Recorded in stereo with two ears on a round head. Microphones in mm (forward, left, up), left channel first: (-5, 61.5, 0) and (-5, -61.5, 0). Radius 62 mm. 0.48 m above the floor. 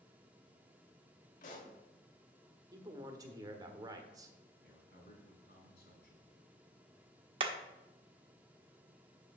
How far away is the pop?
About 1.9 m.